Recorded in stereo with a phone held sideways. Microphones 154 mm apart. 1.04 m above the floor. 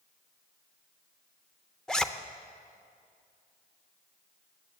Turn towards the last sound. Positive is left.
turn(degrees=5)  # may be behind; listen again after turning